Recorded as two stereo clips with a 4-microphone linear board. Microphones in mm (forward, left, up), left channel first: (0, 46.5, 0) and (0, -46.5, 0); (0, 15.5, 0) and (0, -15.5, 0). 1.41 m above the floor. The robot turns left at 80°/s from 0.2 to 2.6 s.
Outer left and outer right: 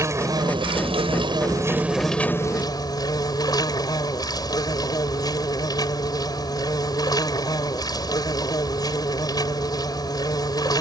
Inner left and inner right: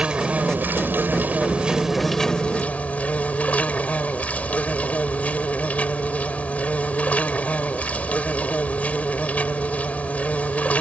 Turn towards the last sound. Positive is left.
turn(degrees=135)